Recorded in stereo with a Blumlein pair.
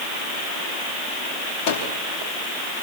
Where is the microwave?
45° left, 4 m.